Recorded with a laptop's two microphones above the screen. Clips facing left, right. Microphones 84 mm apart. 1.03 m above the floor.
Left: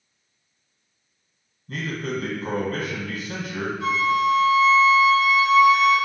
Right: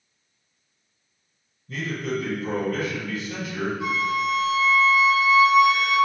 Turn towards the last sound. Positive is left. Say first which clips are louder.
# left 6 dB
turn(degrees=-20)  # may be behind; listen again after turning